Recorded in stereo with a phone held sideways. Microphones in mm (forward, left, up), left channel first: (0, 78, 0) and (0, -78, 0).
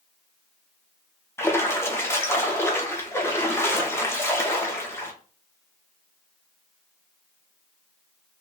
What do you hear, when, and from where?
1.4 s a splash: 15° left (ahead or behind), 0.7 m